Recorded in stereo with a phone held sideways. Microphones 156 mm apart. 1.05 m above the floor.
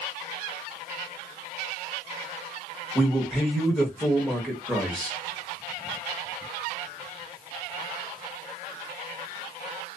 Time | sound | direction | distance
3.0 | a man speaking | centre (ahead or behind) | 1.1 m